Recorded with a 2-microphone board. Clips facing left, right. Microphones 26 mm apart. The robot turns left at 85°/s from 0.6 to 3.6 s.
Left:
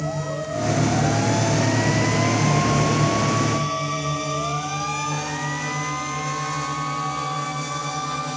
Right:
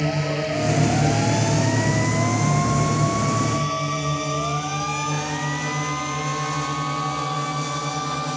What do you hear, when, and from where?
0.0 s a drone: 65° right (ahead or behind); by 8.4 s 25° right (ahead or behind)